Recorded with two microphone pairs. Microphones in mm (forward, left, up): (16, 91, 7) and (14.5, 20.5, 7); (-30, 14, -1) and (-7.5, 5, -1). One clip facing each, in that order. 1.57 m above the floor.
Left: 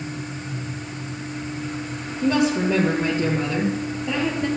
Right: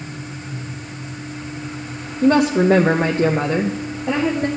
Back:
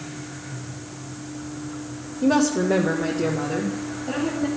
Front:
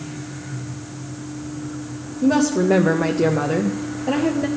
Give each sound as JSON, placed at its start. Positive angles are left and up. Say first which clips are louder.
{"t": 2.2, "sound": "a woman speaking", "louder": "right 6 dB, front 2 dB", "azimuth_deg": -140, "distance_m": 0.7}